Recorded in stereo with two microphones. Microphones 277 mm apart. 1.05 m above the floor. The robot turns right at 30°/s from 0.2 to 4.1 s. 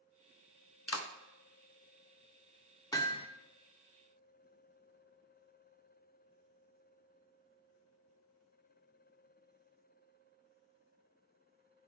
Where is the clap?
55° left (ahead or behind), 0.7 m; by 1.1 s 50° left (ahead or behind), 0.7 m.